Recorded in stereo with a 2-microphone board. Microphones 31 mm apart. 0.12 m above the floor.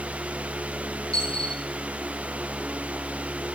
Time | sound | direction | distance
1.1 | a dropped coin | 35° left (ahead or behind) | 8 m